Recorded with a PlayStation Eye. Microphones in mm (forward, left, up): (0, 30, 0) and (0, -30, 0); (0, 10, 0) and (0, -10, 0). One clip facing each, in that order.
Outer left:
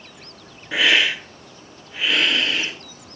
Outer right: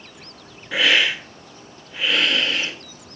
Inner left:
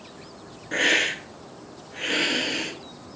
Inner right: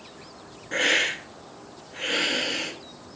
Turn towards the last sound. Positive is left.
turn(degrees=0)  # may be behind; listen again after turning